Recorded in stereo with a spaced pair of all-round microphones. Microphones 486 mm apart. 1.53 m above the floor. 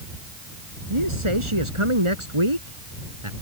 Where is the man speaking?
85° right; by 3.3 s 80° right.